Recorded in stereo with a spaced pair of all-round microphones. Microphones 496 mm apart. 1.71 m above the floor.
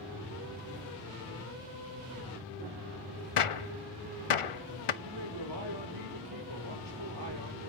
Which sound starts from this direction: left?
A gunshot, at 3.4 s.